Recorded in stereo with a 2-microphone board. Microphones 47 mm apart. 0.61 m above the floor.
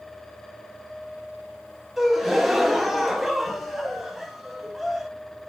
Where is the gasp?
Centre (ahead or behind), 0.5 m.